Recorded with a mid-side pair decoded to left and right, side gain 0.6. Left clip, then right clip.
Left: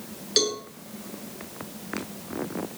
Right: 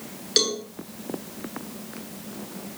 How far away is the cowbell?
About 7.5 m.